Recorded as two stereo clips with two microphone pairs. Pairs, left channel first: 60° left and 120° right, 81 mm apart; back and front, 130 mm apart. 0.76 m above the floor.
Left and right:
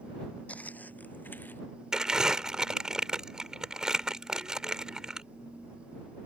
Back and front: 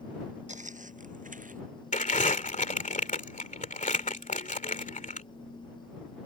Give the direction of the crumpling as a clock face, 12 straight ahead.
7 o'clock.